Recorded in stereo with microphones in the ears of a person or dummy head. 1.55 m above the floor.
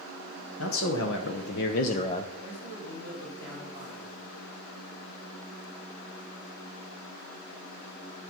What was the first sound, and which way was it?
A man speaking, 85° left.